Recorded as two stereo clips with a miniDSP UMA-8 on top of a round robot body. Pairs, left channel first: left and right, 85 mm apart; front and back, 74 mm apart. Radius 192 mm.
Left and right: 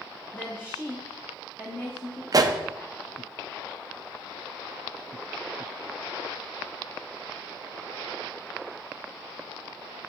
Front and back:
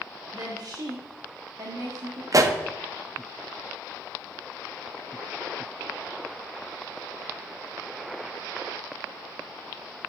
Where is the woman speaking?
150° left, 1.5 m.